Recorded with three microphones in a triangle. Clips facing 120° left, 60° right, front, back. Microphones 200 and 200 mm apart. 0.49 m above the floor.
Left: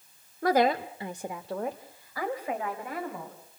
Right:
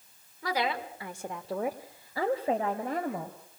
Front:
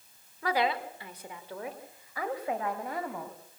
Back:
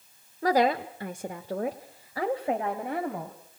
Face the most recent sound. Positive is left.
turn(degrees=-110)